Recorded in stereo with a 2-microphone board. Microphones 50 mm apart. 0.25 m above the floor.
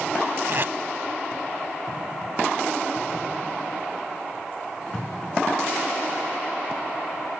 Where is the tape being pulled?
50° right (ahead or behind).